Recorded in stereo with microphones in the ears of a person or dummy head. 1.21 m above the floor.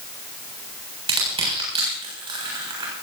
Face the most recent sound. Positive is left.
turn(degrees=-25)  # may be behind; listen again after turning